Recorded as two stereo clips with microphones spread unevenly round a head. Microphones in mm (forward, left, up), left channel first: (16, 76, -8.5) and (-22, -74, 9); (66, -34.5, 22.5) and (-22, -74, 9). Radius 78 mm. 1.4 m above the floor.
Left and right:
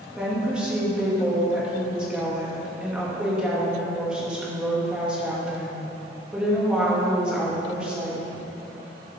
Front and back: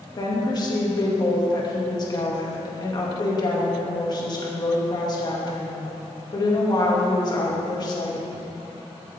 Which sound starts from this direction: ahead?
A woman speaking, at 0.2 s.